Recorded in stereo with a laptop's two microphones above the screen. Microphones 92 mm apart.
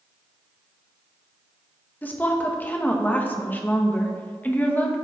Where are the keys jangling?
I don't hear keys jangling.